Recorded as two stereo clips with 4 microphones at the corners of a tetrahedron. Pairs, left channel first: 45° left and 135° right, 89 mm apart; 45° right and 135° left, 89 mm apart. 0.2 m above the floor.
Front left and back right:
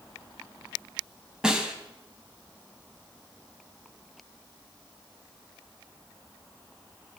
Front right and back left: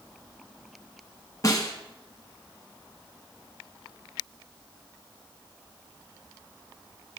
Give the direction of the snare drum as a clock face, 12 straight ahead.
2 o'clock.